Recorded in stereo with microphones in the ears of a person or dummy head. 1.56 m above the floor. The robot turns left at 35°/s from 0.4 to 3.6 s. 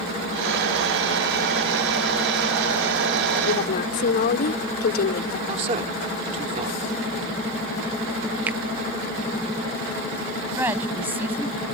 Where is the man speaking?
35° right (ahead or behind).